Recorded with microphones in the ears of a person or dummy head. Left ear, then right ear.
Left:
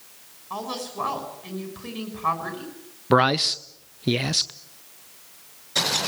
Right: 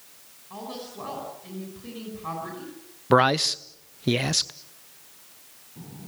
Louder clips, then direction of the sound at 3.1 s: Even; 10° right (ahead or behind).